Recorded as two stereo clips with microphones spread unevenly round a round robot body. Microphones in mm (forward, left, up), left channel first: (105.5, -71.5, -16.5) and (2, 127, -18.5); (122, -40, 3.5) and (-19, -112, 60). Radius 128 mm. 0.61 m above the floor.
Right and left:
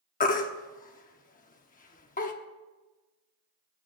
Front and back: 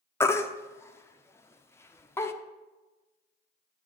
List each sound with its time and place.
0.2 s a baby crying: 20° right, 1.0 m